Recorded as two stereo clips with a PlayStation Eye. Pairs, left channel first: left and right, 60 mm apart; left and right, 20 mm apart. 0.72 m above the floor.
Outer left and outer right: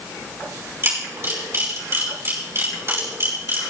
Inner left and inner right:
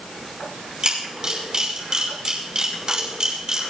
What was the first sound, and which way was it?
A camera shutter, 45° right (ahead or behind).